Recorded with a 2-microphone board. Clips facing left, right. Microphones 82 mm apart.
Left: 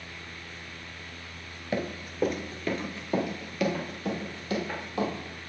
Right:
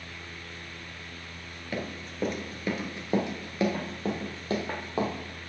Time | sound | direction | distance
1.7 | running footsteps | 20° left (ahead or behind) | 1.1 m